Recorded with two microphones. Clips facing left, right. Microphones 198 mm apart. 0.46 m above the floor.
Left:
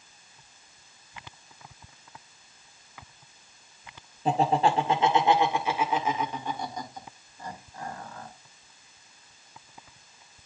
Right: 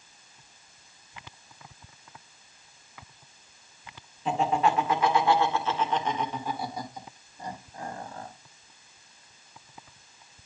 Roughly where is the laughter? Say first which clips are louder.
Left 2 dB; left.